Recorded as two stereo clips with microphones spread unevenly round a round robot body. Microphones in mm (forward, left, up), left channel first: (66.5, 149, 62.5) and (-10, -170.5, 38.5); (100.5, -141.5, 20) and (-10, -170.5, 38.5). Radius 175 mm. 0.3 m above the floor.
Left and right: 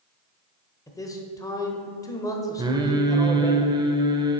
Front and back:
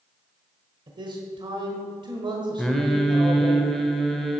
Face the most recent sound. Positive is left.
turn(degrees=-50)